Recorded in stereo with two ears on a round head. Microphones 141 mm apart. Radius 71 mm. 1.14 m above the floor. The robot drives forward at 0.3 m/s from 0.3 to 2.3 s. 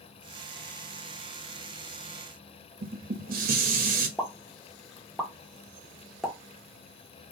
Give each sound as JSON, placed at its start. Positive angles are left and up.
{"t": 2.8, "sound": "dishes clattering", "side_deg": -60, "distance_m": 1.0}
{"t": 4.2, "sound": "a pop", "side_deg": 0, "distance_m": 1.1}